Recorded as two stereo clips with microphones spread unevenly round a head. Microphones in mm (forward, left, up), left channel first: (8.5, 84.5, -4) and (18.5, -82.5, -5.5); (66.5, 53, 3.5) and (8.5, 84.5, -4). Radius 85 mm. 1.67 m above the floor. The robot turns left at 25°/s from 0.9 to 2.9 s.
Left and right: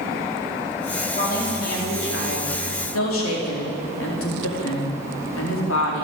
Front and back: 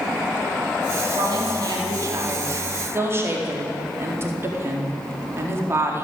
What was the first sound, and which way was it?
A woman speaking, 145° left.